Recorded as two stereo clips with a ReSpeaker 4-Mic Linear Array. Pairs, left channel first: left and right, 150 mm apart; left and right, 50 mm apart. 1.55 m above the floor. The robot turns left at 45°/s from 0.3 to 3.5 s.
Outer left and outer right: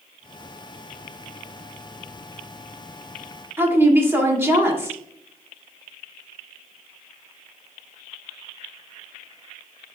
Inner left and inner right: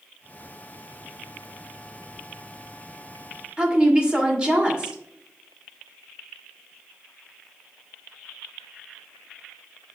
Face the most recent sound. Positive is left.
turn(degrees=-15)  # may be behind; listen again after turning